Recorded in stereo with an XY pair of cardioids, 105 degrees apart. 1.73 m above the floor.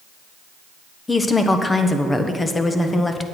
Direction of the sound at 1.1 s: 20° left.